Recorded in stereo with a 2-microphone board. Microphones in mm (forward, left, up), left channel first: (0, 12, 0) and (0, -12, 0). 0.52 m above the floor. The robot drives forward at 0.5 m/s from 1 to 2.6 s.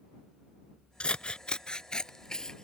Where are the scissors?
50° left (ahead or behind); by 2.6 s 30° left (ahead or behind).